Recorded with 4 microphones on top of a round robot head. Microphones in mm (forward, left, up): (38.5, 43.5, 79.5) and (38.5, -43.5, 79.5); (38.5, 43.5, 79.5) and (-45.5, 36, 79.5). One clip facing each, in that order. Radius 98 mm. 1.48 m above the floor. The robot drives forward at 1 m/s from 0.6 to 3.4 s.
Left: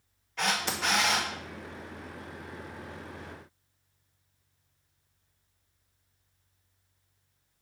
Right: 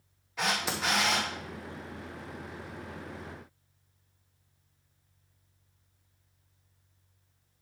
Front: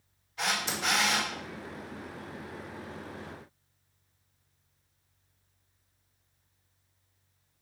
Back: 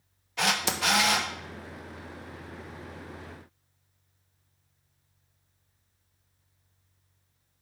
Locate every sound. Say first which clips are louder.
0.4 s a camera shutter: left 1 dB, back 4 dB; 175° right, 0.5 m; by 1.3 s straight behind, 1.1 m